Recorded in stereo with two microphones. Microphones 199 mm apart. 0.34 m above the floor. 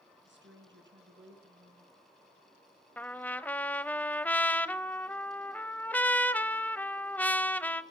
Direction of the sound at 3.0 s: 10° left (ahead or behind).